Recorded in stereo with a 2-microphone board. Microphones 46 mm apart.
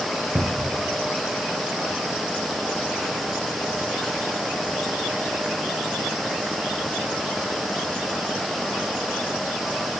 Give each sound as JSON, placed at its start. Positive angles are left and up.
{"t": 0.3, "sound": "a cupboard door", "side_deg": -60, "distance_m": 2.0}